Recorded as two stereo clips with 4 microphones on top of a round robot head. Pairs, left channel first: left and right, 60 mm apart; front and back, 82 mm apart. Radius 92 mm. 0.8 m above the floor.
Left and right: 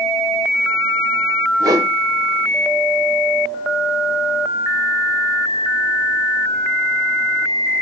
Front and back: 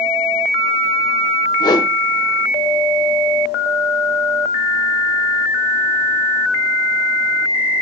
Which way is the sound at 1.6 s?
50° right.